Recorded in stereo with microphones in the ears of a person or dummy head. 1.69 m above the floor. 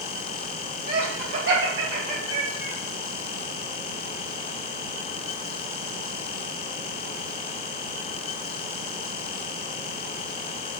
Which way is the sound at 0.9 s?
55° right (ahead or behind).